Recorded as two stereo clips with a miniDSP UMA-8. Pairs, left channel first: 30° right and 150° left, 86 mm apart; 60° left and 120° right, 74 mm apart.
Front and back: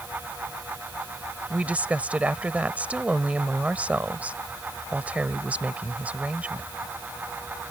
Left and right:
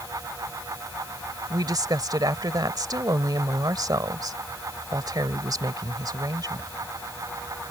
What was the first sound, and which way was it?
A woman speaking, 140° right.